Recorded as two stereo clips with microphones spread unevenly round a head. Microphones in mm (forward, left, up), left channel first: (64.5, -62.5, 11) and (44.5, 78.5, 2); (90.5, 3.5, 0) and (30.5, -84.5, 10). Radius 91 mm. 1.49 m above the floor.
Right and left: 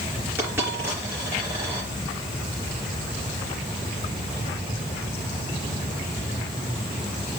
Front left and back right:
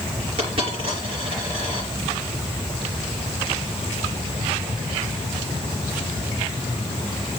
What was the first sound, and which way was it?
A dropped coin, straight behind.